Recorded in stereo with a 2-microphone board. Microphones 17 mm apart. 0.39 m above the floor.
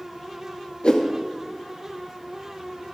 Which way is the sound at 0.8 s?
80° left.